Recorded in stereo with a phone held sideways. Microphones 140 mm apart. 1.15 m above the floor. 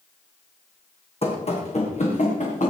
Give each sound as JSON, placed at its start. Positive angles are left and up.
{"t": 1.2, "sound": "running footsteps", "side_deg": 45, "distance_m": 3.0}